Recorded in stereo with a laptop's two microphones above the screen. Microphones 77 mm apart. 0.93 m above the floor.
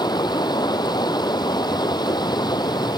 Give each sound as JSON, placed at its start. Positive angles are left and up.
{"t": 0.0, "sound": "running water", "side_deg": 60}